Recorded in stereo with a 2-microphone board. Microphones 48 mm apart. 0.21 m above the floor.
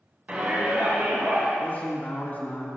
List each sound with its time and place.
0.3 s a shout: 30° right (ahead or behind), 1.3 m; by 1.5 s 40° right (ahead or behind), 2 m
1.6 s a man speaking: 35° left (ahead or behind), 2.0 m